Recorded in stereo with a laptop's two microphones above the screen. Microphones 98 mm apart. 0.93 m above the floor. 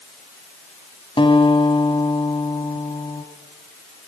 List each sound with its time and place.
1.2 s a guitar: 60° left (ahead or behind), 2.5 m